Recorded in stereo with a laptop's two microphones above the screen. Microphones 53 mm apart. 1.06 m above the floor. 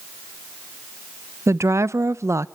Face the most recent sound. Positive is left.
turn(degrees=-60)  # may be behind; listen again after turning